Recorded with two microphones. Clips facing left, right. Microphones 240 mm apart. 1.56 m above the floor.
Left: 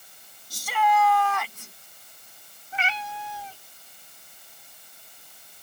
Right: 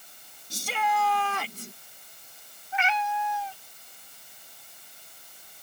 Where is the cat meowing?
35° left (ahead or behind).